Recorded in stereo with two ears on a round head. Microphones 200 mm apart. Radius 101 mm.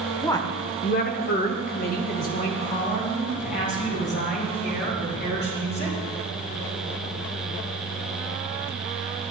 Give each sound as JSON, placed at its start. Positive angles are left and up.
{"t": 0.2, "sound": "a woman speaking", "side_deg": 10, "distance_m": 1.2}